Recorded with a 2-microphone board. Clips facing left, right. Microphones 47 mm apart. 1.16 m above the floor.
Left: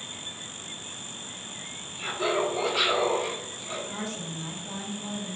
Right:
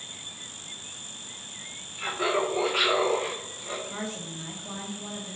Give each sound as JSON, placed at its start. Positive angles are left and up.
{"t": 2.0, "sound": "laughter", "side_deg": -60, "distance_m": 1.3}
{"t": 3.9, "sound": "a woman speaking", "side_deg": -20, "distance_m": 1.2}